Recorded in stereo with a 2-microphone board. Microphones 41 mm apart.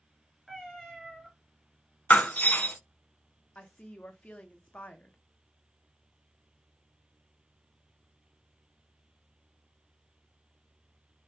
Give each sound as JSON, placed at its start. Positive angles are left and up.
{"t": 0.5, "sound": "a cat meowing", "side_deg": 5, "distance_m": 1.9}
{"t": 2.1, "sound": "breaking glass", "side_deg": 45, "distance_m": 0.7}
{"t": 3.5, "sound": "a woman speaking", "side_deg": 35, "distance_m": 0.7}